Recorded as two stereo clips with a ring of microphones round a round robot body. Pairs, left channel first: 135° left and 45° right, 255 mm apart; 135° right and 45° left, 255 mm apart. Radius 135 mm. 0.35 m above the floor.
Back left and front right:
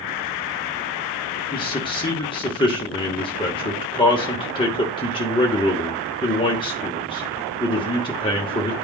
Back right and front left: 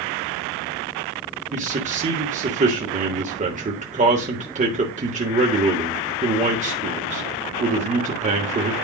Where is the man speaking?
80° left, 1.1 m.